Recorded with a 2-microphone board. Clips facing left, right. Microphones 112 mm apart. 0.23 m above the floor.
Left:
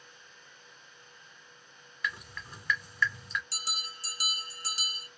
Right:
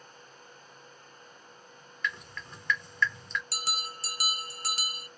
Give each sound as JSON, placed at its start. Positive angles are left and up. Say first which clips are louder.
{"t": 2.0, "sound": "dripping", "louder": "right 1 dB", "side_deg": 5, "distance_m": 1.1}
{"t": 3.5, "sound": "a bell", "louder": "right 5 dB", "side_deg": -70, "distance_m": 0.8}